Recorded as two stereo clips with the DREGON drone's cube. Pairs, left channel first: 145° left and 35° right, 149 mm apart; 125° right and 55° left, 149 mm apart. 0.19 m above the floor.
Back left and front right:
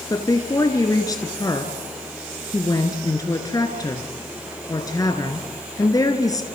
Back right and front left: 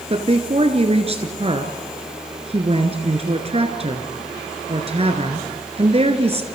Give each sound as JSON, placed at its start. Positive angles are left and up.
{"t": 0.1, "sound": "a woman speaking", "azimuth_deg": 85, "distance_m": 1.9}